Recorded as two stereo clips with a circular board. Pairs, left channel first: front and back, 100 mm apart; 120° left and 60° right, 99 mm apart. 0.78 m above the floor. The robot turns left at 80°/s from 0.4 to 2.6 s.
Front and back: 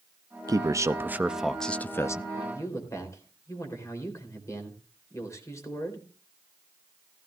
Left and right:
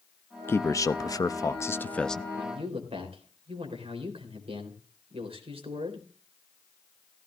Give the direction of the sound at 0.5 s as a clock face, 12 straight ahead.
6 o'clock.